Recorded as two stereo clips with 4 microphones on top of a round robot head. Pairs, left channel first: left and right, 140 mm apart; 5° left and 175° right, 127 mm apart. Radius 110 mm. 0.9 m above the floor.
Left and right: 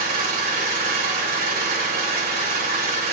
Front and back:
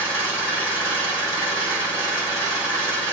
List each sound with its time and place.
0.0 s an engine running: 95° right, 2 m